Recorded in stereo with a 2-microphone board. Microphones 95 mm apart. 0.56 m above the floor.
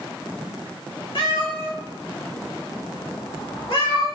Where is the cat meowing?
80° left, 1.1 m.